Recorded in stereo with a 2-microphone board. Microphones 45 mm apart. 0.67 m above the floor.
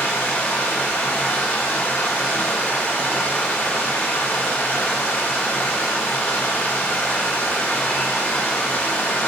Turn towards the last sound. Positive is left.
turn(degrees=50)  # may be behind; listen again after turning